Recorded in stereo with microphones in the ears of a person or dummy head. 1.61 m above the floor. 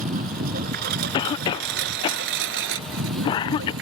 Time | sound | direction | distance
0.0 | a lawn mower | 50° right (ahead or behind) | ?
1.1 | a cough | 30° left (ahead or behind) | ?